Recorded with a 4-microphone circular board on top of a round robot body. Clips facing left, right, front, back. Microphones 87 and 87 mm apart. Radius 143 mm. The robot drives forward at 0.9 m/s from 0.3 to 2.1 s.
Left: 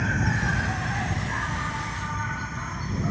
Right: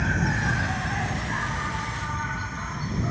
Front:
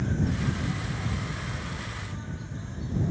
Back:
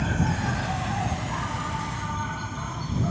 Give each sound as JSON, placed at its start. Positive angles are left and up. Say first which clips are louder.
{"t": 0.0, "sound": "an insect", "louder": "right 1 dB, back 3 dB", "azimuth_deg": 180}